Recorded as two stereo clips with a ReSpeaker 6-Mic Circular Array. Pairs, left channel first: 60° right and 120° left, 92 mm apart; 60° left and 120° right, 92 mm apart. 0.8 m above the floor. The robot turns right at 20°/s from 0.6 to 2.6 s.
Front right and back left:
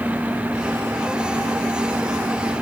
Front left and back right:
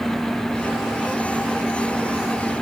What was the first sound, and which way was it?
Only background noise.